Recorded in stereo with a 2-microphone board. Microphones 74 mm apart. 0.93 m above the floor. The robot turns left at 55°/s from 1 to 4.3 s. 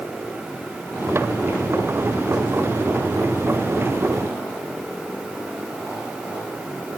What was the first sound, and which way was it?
Only background noise.